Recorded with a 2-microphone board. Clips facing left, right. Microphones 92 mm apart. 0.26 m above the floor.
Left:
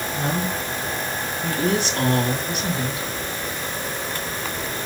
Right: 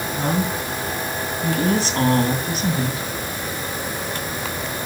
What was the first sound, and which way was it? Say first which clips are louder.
A woman speaking: right 3 dB; 40° right (ahead or behind).